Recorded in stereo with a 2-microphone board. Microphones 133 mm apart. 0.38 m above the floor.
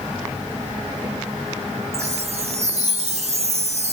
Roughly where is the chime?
Right.